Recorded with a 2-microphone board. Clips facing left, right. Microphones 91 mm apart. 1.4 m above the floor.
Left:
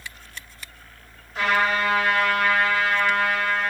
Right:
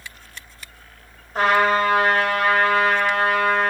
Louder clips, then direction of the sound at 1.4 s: Right 5 dB; 55° right (ahead or behind).